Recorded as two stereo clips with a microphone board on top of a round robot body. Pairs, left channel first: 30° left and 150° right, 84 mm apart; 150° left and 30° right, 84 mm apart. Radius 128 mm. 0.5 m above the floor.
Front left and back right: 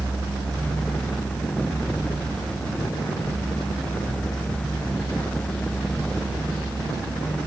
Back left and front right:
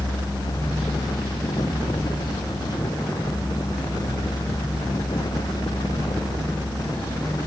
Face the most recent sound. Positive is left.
No sound to turn to.